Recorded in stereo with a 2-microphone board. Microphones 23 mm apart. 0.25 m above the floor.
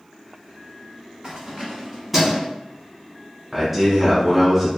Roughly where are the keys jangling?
Right.